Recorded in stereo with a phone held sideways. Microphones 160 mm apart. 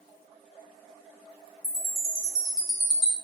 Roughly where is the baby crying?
No baby crying in this recording.